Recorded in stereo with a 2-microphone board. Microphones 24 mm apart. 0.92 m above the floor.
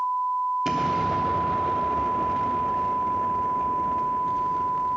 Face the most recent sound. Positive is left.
turn(degrees=-15)  # may be behind; listen again after turning